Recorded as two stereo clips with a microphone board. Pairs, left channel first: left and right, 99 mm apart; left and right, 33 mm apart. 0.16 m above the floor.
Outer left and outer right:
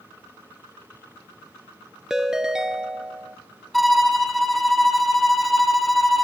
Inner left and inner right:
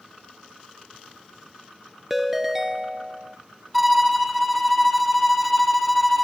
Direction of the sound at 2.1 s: 5° right (ahead or behind).